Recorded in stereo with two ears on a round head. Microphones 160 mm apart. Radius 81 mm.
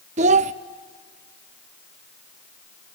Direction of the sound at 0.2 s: 40° right (ahead or behind).